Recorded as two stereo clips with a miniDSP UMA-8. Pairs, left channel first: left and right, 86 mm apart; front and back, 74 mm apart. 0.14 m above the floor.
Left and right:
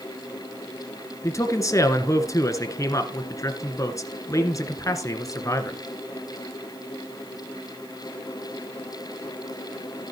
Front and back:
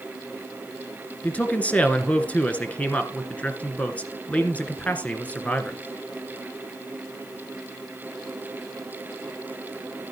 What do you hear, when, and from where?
1.2 s a man speaking: 60° left, 1.9 m